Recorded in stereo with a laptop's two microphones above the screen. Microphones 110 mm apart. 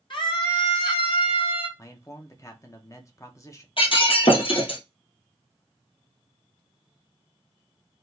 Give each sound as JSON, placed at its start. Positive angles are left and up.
{"t": 0.1, "sound": "a scream", "side_deg": 50, "distance_m": 2.0}
{"t": 1.8, "sound": "a man speaking", "side_deg": 30, "distance_m": 1.0}
{"t": 3.8, "sound": "breaking glass", "side_deg": 55, "distance_m": 1.7}